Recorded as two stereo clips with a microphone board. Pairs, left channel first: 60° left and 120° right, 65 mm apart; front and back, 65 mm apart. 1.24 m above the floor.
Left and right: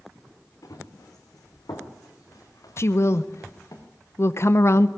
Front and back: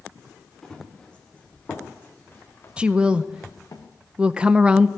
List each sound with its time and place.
0.6 s running footsteps: 80° left, 4 m; by 3.8 s 25° left, 4 m
2.8 s a woman speaking: 105° left, 0.6 m